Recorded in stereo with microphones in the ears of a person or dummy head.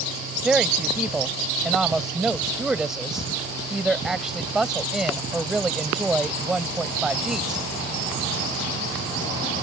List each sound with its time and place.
0.4 s a woman speaking: 5° right (ahead or behind)